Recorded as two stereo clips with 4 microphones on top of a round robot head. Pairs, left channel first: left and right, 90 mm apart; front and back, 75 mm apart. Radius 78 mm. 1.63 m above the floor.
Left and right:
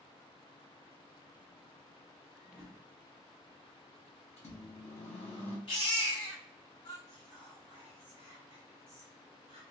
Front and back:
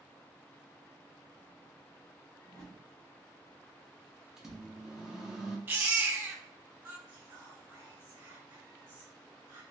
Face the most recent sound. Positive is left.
turn(degrees=-125)